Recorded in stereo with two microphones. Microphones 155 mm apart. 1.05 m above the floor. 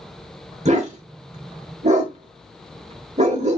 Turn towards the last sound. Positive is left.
turn(degrees=-45)  # may be behind; listen again after turning